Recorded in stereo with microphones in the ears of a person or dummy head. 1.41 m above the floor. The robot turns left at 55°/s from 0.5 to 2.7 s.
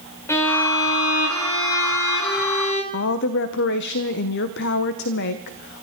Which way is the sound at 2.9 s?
70° left (ahead or behind).